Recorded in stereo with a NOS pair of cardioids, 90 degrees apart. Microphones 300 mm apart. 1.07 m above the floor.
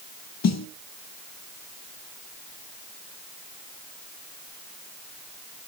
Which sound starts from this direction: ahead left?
A snare drum, at 0.4 s.